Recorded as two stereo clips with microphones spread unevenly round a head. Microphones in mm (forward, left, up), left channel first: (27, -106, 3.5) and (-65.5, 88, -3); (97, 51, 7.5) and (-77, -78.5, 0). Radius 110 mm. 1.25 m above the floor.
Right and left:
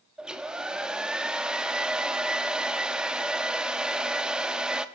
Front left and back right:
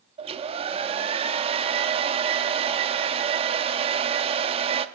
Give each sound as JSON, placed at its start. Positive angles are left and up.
{"t": 0.2, "sound": "a hair dryer", "azimuth_deg": -160, "distance_m": 0.7}